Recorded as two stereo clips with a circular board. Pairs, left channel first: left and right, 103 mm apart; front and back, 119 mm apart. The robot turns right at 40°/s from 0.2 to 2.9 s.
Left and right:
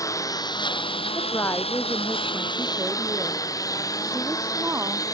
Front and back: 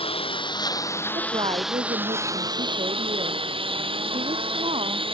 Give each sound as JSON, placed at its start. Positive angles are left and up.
{"t": 0.0, "sound": "a lawn mower", "azimuth_deg": 35}
{"t": 1.1, "sound": "a woman speaking", "azimuth_deg": 135}